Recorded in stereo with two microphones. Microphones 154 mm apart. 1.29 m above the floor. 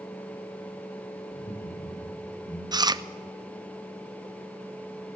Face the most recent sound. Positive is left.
turn(degrees=-25)  # may be behind; listen again after turning